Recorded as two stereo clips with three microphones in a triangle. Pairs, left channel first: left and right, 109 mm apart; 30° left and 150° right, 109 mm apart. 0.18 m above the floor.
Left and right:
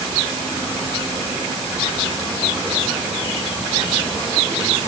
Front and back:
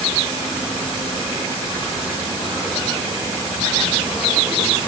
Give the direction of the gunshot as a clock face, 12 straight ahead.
No gunshot in this recording.